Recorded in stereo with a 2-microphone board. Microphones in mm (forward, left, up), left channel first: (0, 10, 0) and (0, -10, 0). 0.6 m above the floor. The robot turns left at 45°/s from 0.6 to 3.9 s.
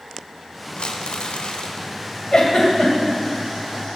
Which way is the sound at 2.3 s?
50° left (ahead or behind).